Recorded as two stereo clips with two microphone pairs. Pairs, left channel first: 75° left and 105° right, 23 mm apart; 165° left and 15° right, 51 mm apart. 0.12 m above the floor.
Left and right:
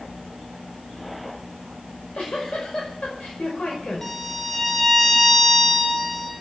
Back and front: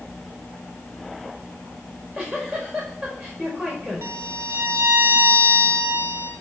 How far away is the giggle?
About 5.5 m.